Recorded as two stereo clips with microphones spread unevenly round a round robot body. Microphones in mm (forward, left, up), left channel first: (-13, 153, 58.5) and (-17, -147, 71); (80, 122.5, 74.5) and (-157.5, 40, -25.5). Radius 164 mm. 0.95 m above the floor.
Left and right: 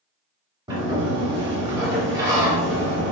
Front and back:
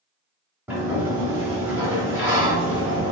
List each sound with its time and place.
0.7 s a sliding door: 35° right, 0.7 m